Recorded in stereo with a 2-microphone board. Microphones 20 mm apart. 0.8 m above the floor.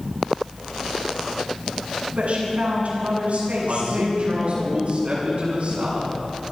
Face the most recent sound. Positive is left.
turn(degrees=-70)  # may be behind; listen again after turning